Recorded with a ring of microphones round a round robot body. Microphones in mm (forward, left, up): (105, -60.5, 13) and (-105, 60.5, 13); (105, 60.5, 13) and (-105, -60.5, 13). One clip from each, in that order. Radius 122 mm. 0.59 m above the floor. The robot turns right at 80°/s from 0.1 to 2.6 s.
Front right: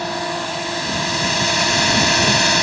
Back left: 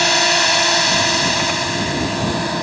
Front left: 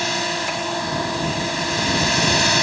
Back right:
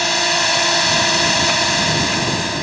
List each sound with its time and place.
0.0 s a drone: 140° left; by 2.6 s 20° right